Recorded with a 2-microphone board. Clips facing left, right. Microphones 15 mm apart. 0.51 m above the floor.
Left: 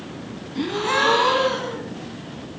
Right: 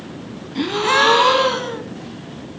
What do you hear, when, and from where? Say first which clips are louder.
0.6 s a gasp: right 5 dB; 25° right (ahead or behind), 2.0 m